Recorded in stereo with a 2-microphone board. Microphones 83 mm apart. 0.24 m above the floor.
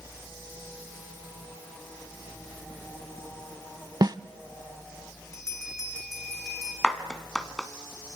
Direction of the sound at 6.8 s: 5° left (ahead or behind).